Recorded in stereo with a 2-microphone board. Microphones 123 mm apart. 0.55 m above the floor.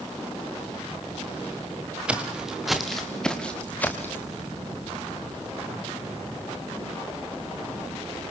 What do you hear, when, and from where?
2.1 s footsteps: 10° right (ahead or behind), 3 m; by 4.3 s 20° left (ahead or behind), 3 m